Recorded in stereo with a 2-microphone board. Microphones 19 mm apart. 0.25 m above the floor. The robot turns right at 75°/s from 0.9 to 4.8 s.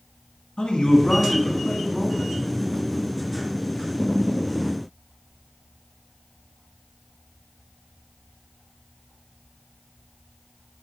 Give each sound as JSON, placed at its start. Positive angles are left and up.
{"t": 0.6, "sound": "a man speaking", "azimuth_deg": 45, "distance_m": 2.5}